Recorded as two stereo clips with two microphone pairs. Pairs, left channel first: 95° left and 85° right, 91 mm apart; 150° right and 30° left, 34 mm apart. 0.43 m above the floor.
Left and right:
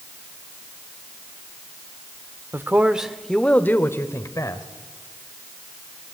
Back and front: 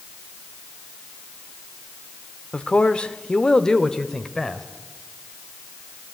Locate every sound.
2.5 s a man speaking: 125° right, 1.0 m; by 4.6 s 135° left, 1.7 m